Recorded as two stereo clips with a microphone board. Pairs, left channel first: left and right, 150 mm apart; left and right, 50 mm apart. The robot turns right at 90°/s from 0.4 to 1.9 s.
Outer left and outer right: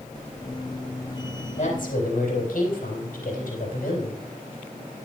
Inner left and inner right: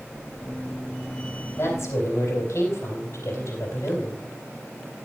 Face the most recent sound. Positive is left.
turn(degrees=90)